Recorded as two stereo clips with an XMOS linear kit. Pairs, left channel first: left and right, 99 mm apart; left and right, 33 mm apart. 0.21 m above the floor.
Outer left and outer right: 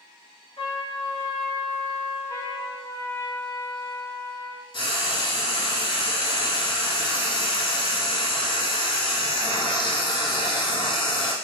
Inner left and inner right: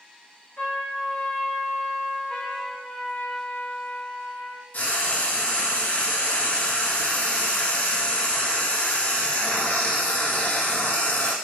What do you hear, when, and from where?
0.6 s a trumpet: 65° left (ahead or behind), 1.3 m
2.3 s a trumpet: 30° left (ahead or behind), 0.7 m
4.7 s frying: 60° left (ahead or behind), 0.7 m